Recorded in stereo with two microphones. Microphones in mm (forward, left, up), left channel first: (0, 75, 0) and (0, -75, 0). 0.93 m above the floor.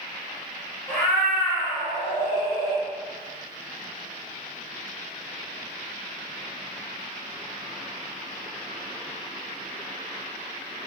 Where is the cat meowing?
Centre (ahead or behind), 1.2 m; by 2.9 s 70° left (ahead or behind), 1.3 m.